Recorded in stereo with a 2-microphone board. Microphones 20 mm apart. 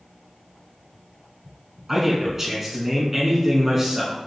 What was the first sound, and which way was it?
A man speaking, 20° right (ahead or behind).